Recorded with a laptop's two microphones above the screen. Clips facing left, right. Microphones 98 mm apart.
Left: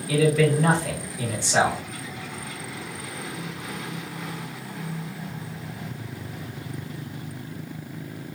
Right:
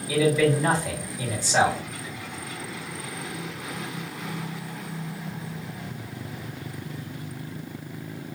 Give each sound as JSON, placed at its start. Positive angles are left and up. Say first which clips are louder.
{"t": 0.1, "sound": "a man speaking", "louder": "left 1 dB", "side_deg": 70, "distance_m": 2.0}